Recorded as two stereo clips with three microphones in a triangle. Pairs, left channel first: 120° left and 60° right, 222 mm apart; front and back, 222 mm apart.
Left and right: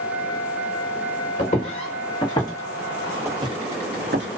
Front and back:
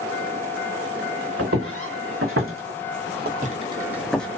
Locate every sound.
1.4 s footsteps: 170° left, 1.2 m; by 4.3 s 85° right, 0.7 m